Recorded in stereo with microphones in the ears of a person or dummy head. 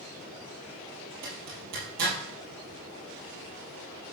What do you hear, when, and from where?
1.2 s a zipper: 60° right (ahead or behind), 5.5 m